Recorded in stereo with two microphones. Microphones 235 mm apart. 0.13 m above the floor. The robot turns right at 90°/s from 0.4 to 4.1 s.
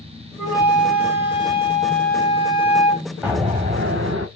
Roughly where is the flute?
Behind.